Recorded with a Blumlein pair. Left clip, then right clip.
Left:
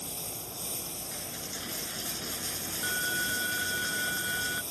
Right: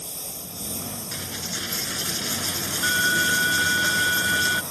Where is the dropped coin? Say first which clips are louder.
Right 11 dB; 60° right.